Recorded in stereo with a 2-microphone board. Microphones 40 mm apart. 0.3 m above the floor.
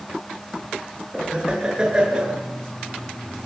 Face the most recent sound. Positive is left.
turn(degrees=-20)  # may be behind; listen again after turning